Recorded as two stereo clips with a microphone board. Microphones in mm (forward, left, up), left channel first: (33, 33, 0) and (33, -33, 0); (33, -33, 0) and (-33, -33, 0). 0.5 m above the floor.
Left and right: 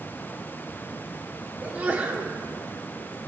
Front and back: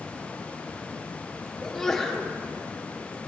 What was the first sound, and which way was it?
A sneeze, 75° right.